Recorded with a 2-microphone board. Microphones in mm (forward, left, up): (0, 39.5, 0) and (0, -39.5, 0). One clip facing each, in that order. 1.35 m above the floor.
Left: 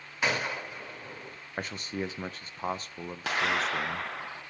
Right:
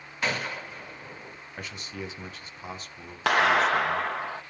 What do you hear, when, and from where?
0.2 s a gunshot: 15° left (ahead or behind), 1.9 m
1.6 s a man speaking: 40° left (ahead or behind), 0.7 m
3.3 s a clap: 70° right (ahead or behind), 0.7 m